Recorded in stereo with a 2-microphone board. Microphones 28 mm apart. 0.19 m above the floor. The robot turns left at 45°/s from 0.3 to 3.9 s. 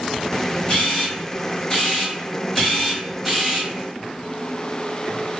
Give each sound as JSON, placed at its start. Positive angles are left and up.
{"t": 0.7, "sound": "a camera shutter", "azimuth_deg": 105, "distance_m": 1.7}